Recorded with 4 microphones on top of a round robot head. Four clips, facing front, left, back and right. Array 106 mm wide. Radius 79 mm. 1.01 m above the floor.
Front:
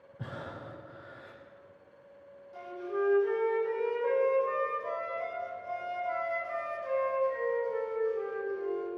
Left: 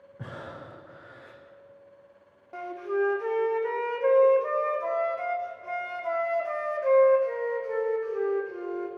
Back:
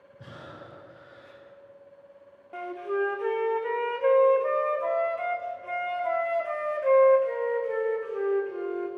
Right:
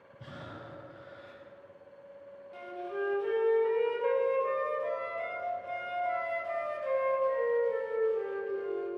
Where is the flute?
145° left, 2.5 m.